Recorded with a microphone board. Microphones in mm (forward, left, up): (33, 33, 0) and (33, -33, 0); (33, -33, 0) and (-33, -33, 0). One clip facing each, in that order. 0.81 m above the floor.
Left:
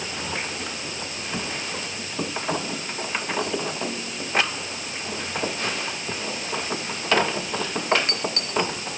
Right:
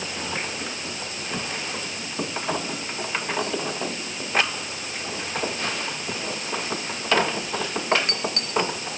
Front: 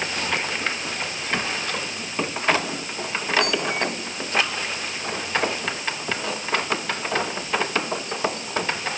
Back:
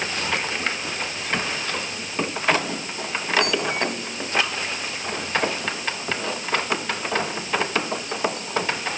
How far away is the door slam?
No door slam in this recording.